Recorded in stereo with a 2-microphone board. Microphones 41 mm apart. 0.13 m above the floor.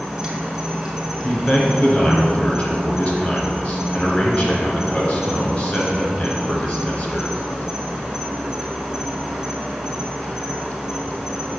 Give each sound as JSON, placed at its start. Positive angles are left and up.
{"t": 0.0, "sound": "an insect", "side_deg": -10, "distance_m": 2.0}
{"t": 1.2, "sound": "a man speaking", "side_deg": 35, "distance_m": 1.8}